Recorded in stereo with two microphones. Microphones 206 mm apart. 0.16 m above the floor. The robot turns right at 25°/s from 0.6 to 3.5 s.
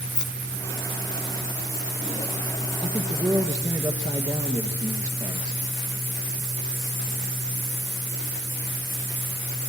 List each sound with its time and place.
0.1 s keys jangling: 5° left (ahead or behind), 0.8 m; by 1.9 s 20° left (ahead or behind), 0.8 m
2.8 s a man speaking: 30° right (ahead or behind), 3 m; by 5.6 s 15° right (ahead or behind), 3 m